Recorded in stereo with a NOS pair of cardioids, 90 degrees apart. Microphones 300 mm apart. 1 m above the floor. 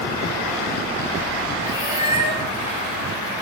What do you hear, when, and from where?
1.6 s a cat meowing: 15° right, 2 m